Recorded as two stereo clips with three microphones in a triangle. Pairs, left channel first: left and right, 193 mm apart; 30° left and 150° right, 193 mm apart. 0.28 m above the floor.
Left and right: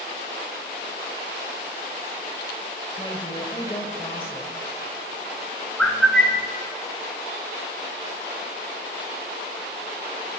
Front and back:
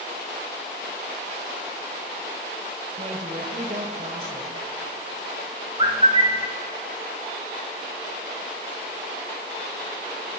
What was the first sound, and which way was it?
A woman speaking, 155° left.